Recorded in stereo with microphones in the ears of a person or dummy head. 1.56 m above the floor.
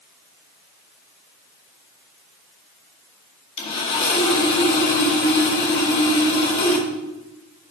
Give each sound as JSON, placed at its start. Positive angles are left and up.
{"t": 3.6, "sound": "sawing", "side_deg": 30, "distance_m": 2.5}